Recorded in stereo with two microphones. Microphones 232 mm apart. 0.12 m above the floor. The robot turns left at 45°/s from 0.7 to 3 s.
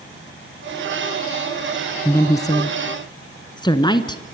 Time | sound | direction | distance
2.0 | a woman speaking | 10° left (ahead or behind) | 1.3 m